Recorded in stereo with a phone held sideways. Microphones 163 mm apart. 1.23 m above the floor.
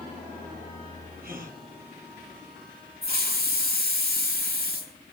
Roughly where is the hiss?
Right.